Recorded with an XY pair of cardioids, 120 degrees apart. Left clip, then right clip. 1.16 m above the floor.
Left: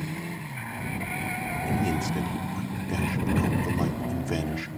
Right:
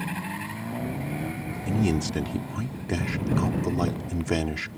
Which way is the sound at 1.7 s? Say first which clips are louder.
Right 4 dB; 25° right.